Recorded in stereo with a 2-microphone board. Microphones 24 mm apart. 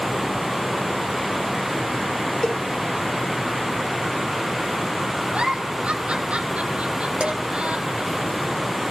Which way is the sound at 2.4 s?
25° left (ahead or behind).